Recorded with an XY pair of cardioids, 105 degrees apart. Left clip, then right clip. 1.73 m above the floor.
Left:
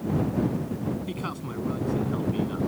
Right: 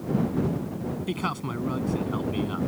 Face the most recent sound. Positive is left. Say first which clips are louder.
# right 4 dB
turn(degrees=-40)